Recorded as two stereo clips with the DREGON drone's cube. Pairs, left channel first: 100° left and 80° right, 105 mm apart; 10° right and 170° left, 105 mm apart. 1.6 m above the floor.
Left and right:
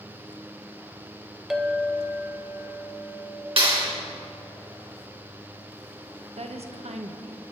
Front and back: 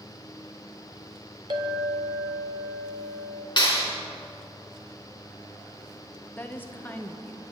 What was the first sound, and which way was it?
A clink, 165° right.